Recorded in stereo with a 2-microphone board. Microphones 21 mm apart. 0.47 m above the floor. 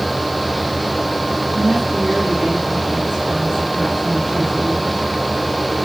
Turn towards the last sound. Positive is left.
turn(degrees=-30)  # may be behind; listen again after turning